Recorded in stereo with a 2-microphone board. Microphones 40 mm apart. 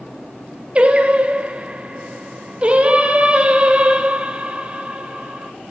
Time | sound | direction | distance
0.8 | singing | 30° right (ahead or behind) | 1.2 m